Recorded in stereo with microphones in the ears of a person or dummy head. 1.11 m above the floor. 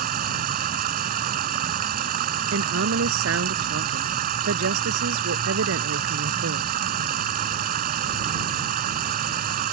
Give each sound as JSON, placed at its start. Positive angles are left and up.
{"t": 0.0, "sound": "running water", "side_deg": -50}
{"t": 2.5, "sound": "a woman speaking", "side_deg": -75}